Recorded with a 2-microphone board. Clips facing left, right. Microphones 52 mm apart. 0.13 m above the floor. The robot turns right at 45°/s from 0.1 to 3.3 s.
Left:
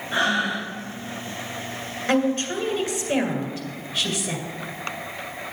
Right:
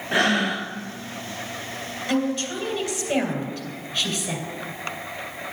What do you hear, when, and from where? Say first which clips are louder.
0.1 s breathing: right 1 dB; 65° right (ahead or behind), 1.1 m; by 0.7 s 60° right (ahead or behind), 1.1 m
2.1 s a woman speaking: left 3 dB; 115° left, 2 m; by 4.4 s 170° left, 2 m